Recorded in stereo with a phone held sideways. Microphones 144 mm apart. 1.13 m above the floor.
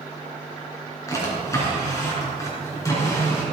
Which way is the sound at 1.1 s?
20° left (ahead or behind).